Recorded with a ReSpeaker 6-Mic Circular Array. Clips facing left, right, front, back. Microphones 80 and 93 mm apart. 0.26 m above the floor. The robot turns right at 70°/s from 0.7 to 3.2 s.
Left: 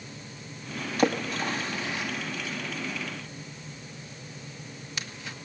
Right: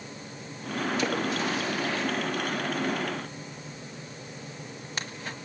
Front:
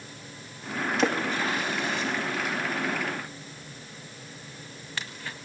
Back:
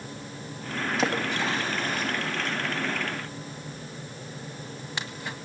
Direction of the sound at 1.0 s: 90° left.